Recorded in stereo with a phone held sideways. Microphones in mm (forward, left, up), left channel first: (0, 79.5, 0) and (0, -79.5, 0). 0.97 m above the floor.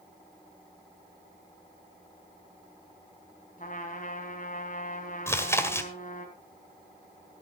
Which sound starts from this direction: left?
A trumpet, at 3.6 s.